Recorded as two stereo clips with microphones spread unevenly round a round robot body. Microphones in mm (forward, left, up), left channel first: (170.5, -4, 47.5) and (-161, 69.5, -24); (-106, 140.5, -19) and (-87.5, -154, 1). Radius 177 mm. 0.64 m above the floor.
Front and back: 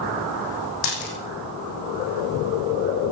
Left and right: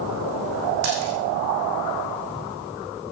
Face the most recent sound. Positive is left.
turn(degrees=-40)